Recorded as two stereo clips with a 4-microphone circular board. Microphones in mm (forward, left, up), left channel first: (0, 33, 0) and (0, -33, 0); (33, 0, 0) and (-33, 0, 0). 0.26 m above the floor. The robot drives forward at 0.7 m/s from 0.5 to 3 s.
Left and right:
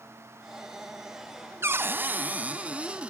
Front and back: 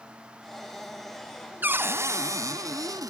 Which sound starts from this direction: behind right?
A cupboard door, at 1.6 s.